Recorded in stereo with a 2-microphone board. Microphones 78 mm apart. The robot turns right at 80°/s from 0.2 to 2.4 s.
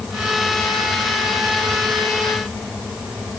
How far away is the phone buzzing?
I don't hear a phone buzzing.